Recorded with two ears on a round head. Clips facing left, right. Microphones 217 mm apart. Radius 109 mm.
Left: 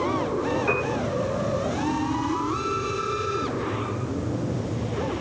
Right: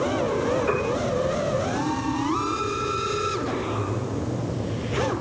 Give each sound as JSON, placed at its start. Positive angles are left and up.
{"t": 0.7, "sound": "a piano", "side_deg": 55, "distance_m": 8.5}